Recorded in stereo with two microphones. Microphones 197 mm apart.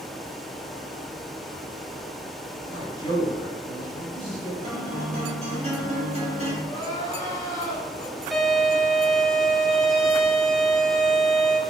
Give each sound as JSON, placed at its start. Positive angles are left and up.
{"t": 2.7, "sound": "a man speaking", "side_deg": 20, "distance_m": 2.0}
{"t": 4.6, "sound": "a guitar", "side_deg": -35, "distance_m": 1.5}
{"t": 6.6, "sound": "crying", "side_deg": 20, "distance_m": 1.5}
{"t": 8.3, "sound": "a violin", "side_deg": 0, "distance_m": 0.6}